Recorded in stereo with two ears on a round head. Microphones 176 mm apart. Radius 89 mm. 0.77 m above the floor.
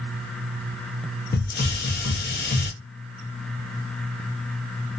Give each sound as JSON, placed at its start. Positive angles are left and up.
{"t": 1.3, "sound": "a hiss", "side_deg": 50, "distance_m": 0.6}